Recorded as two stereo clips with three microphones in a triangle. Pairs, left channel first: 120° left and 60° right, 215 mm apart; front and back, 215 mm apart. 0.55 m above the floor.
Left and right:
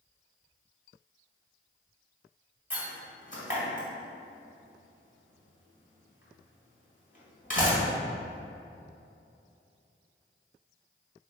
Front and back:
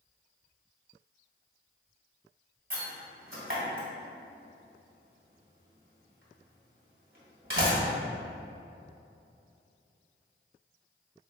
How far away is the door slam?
About 1.8 m.